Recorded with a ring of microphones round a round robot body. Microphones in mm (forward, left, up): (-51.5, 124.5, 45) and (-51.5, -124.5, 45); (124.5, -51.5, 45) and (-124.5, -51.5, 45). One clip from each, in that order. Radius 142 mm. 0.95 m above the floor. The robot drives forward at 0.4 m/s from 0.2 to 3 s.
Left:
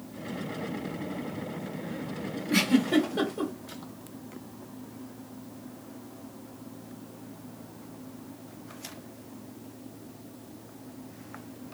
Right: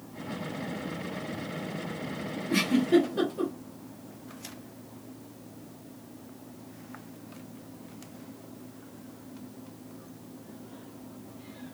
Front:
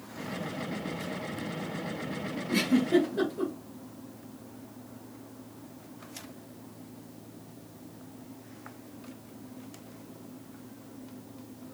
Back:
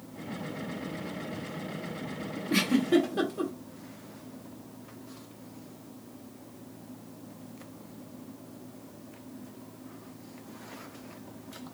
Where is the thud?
No thud in this recording.